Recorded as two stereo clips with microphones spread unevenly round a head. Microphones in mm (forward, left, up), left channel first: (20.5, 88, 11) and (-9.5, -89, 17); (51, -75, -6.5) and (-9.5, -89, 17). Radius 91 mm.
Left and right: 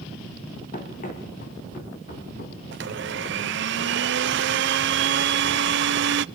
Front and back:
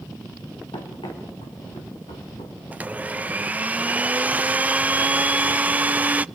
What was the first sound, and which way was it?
Running footsteps, 30° left.